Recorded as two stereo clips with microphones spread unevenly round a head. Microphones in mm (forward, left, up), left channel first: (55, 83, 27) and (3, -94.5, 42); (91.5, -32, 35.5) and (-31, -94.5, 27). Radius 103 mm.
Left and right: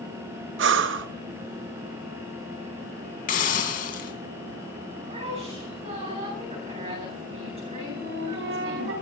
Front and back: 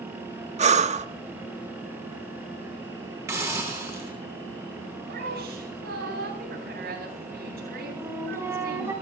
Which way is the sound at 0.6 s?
125° right.